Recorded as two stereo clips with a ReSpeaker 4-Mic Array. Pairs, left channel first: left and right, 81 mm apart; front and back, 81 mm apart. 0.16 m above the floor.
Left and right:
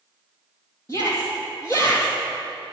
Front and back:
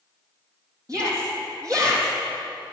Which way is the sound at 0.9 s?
140° left.